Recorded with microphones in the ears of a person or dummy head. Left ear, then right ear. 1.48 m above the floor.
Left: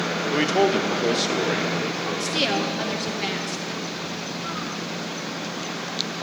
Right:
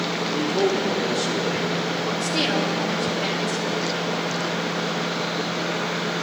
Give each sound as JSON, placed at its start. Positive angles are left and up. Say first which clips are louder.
{"t": 0.3, "sound": "a man speaking", "louder": "left 3 dB", "side_deg": 65, "distance_m": 0.8}
{"t": 2.2, "sound": "a woman speaking", "louder": "left 1 dB", "side_deg": 20, "distance_m": 1.7}